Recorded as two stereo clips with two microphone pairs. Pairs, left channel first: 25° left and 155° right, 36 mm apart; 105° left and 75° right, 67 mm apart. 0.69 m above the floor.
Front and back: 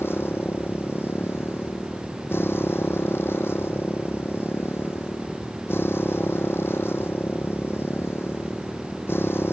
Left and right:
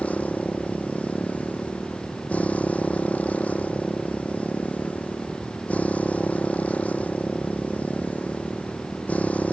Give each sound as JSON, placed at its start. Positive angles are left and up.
{"t": 0.0, "sound": "a motorcycle", "azimuth_deg": 35}